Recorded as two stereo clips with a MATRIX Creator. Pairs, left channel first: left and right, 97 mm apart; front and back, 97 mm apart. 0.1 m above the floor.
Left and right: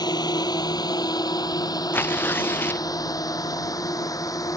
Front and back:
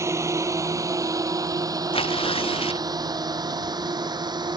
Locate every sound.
0.0 s a drone: 125° left; by 4.6 s 140° left
1.9 s tearing paper: 20° left